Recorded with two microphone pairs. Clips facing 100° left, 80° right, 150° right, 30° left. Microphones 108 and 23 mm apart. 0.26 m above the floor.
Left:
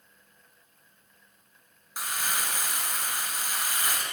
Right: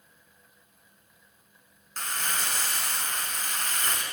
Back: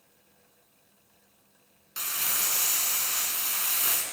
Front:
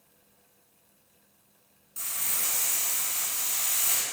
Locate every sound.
2.0 s crumpling: straight behind, 1.9 m